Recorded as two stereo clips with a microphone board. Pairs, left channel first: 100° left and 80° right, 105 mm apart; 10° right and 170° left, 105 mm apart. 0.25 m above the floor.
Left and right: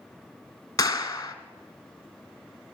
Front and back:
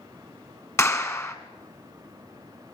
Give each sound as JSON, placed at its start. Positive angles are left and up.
{"t": 0.8, "sound": "a clap", "azimuth_deg": 50, "distance_m": 1.9}